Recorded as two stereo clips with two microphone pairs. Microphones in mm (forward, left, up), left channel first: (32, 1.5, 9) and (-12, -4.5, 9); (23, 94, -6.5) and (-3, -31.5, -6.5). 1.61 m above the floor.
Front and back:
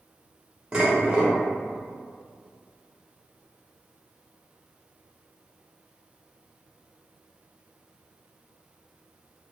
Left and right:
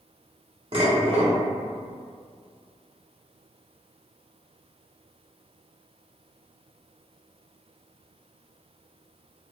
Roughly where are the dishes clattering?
Right.